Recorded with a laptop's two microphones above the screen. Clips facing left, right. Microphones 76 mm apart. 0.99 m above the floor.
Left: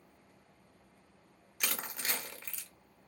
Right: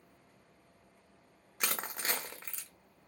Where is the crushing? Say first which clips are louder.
Right 2 dB; 30° right (ahead or behind), 0.8 m.